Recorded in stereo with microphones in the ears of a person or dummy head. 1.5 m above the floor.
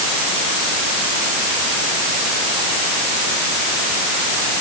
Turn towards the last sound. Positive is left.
No sound to turn to.